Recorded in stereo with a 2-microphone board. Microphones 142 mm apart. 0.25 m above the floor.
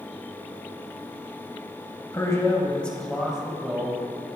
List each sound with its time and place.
2.1 s a man speaking: 25° left (ahead or behind), 1.3 m; by 4.2 s 25° right (ahead or behind), 1.3 m